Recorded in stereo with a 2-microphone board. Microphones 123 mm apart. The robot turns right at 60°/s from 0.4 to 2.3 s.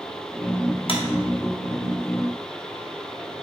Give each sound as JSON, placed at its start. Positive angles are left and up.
{"t": 0.9, "sound": "a clap", "side_deg": 50, "distance_m": 1.0}